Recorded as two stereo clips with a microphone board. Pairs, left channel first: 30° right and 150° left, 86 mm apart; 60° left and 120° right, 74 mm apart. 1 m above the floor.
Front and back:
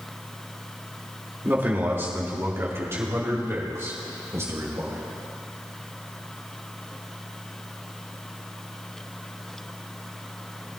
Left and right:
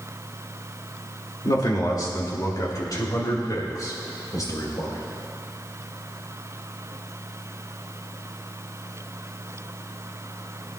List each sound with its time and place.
1.4 s a man speaking: 85° left, 3 m; by 5.0 s 95° left, 4.5 m